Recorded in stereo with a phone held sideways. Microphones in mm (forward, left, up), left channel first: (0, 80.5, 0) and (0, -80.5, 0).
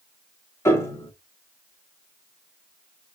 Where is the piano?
15° left (ahead or behind), 1.3 m.